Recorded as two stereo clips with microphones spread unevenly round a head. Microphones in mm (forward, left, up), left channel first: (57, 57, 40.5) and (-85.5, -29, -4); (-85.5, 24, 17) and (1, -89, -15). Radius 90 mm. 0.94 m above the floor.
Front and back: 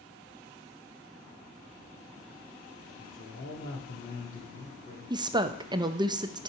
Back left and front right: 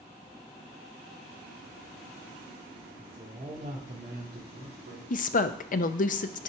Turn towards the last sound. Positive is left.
turn(degrees=160)